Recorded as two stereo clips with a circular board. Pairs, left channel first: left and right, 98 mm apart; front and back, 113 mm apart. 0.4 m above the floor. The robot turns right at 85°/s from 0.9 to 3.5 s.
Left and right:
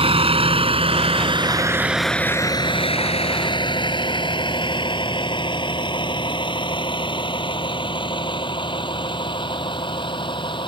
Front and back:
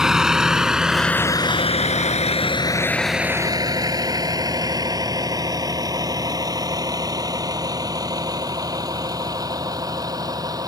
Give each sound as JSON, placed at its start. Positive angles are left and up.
{"t": 0.0, "sound": "a vehicle", "azimuth_deg": -95}